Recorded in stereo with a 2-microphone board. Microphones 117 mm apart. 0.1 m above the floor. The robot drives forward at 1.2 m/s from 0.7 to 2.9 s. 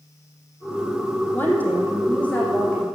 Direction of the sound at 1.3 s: 15° left (ahead or behind).